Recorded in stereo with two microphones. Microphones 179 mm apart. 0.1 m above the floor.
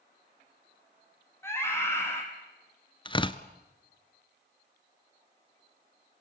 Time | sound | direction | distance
1.4 | a scream | 15° left (ahead or behind) | 5 m
3.0 | tearing paper | 30° left (ahead or behind) | 0.9 m